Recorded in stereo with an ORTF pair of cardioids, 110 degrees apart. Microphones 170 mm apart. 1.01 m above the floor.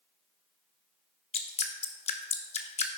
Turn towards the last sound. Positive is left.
turn(degrees=35)